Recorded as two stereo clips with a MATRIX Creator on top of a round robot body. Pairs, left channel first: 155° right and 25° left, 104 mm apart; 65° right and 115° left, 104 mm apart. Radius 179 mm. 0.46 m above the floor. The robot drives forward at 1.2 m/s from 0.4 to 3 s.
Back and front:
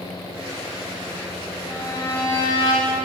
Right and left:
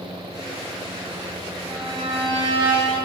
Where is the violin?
145° left, 7 m; by 3.0 s 155° left, 8 m.